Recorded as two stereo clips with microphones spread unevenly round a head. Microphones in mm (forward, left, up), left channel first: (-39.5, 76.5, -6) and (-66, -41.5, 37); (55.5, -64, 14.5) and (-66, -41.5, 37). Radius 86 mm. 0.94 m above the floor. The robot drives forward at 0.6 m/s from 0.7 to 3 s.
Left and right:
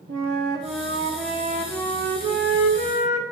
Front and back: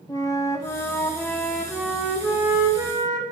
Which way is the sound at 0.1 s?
75° right.